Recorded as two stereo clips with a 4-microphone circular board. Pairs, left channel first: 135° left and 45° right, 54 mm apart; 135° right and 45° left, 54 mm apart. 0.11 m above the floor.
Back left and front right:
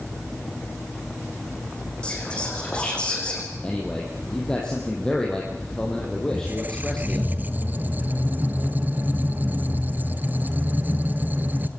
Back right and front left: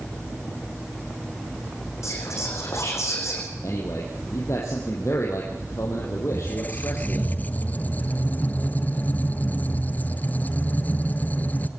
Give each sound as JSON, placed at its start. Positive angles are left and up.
{"t": 2.0, "sound": "whispering", "azimuth_deg": -155, "distance_m": 6.0}
{"t": 3.6, "sound": "a man speaking", "azimuth_deg": -150, "distance_m": 3.5}
{"t": 6.3, "sound": "a squeak", "azimuth_deg": -85, "distance_m": 0.8}